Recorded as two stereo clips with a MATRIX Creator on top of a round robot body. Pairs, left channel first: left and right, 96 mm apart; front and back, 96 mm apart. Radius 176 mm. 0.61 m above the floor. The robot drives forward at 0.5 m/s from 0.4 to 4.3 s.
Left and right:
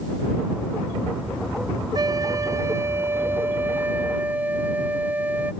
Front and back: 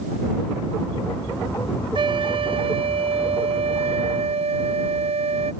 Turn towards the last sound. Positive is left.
turn(degrees=-165)